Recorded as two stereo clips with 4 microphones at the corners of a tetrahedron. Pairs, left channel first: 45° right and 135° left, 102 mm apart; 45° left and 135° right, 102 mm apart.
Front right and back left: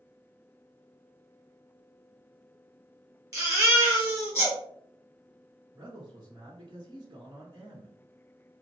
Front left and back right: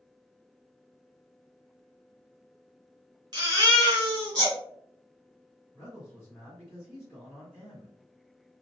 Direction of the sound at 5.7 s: 135° left.